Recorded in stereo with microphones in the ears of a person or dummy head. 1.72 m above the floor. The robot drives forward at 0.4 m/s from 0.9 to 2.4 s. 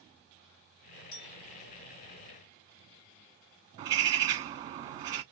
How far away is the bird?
About 0.6 m.